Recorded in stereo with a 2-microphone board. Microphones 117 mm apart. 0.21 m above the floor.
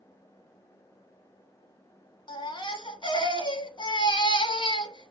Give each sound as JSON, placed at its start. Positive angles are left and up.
{"t": 2.3, "sound": "a baby crying", "side_deg": 40, "distance_m": 0.9}